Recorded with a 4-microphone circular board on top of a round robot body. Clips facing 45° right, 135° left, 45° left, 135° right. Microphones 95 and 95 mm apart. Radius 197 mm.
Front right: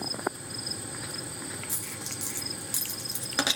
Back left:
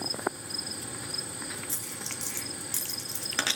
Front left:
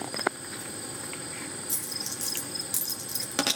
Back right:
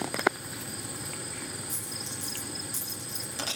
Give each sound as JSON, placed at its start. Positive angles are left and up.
{"t": 1.7, "sound": "a dropped coin", "azimuth_deg": 30, "distance_m": 2.5}